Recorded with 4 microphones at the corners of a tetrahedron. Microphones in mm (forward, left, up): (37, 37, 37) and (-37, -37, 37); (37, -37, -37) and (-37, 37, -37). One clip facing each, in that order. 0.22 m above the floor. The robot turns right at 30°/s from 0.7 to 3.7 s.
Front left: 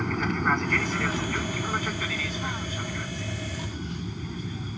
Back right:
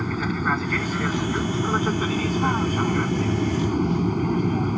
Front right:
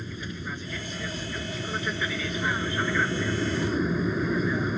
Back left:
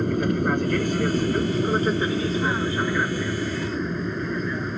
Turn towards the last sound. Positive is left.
turn(degrees=-130)